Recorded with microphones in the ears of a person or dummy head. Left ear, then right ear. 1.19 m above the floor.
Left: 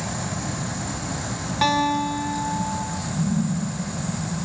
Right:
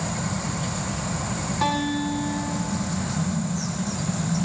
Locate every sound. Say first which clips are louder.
1.6 s a guitar: left 5 dB; 25° left (ahead or behind), 3 m